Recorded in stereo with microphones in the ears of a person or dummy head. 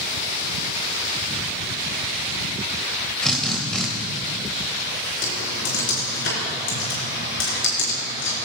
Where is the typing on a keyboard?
70° left (ahead or behind), 4 m.